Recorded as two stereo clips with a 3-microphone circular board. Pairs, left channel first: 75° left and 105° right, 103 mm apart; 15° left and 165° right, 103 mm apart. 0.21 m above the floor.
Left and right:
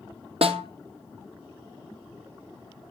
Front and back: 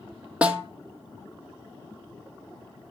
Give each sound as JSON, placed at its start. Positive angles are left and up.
{"t": 0.4, "sound": "a snare drum", "azimuth_deg": -85, "distance_m": 1.1}